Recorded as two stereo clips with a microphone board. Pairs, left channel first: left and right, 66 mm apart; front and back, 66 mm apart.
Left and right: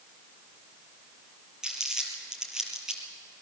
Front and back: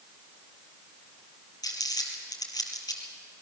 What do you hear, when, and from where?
1.6 s crumpling: 10° right, 3 m